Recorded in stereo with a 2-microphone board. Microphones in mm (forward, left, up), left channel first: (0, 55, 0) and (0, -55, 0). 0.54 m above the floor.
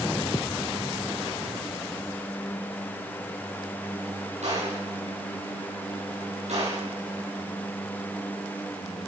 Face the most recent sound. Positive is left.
turn(degrees=-85)